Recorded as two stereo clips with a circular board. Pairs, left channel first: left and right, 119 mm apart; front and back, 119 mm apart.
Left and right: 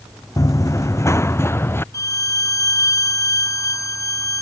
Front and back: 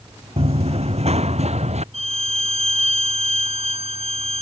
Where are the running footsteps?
150° left; by 1.8 s 160° left.